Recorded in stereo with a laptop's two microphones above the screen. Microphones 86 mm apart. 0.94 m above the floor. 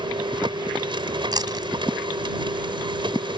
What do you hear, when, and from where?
0.0 s a machine running: 75° right (ahead or behind)
1.3 s chewing: 55° right (ahead or behind)